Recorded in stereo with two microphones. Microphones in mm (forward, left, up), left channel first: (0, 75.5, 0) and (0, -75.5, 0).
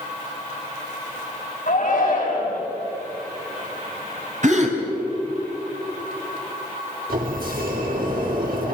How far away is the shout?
About 7 m.